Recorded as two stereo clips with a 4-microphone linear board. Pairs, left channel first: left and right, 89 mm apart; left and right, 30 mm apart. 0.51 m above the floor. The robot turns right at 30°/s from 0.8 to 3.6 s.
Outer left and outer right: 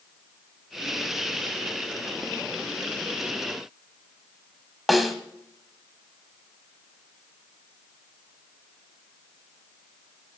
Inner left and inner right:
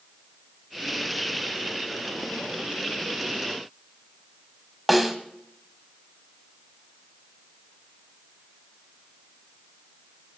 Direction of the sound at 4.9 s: Centre (ahead or behind).